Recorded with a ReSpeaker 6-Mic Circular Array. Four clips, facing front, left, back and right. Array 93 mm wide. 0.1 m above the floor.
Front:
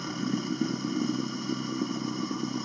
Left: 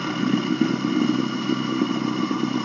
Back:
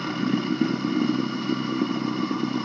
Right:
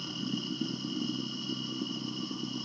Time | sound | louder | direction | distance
0.0 | running water | left 14 dB, back 6 dB | 115° left | ?